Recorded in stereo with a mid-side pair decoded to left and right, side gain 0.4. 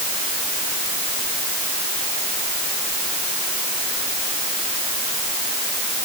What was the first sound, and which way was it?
Only background noise.